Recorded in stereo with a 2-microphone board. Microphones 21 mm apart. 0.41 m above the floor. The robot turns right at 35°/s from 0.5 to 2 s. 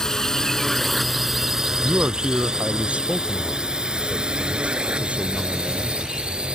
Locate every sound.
0.0 s a drone: 30° left (ahead or behind); by 6.6 s 50° right (ahead or behind)
1.8 s a man speaking: 70° right (ahead or behind); by 6.0 s 75° right (ahead or behind)